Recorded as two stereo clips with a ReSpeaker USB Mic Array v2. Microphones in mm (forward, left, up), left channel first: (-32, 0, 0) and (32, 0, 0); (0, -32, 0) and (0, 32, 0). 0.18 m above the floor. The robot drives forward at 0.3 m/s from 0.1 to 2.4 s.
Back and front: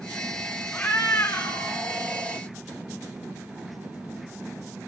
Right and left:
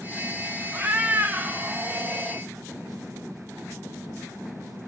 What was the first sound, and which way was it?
A cat meowing, 130° left.